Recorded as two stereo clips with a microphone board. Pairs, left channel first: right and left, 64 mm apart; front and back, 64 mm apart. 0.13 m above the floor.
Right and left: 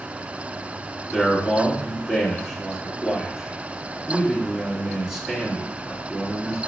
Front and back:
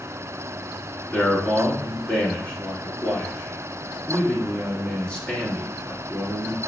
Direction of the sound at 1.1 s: 35° left.